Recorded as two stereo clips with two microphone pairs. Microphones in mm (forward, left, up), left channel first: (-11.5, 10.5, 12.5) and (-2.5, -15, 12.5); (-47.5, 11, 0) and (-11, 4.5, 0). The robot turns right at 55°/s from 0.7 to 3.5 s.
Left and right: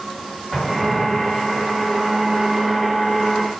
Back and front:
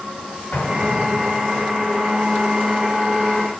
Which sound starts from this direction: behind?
An explosion, at 0.5 s.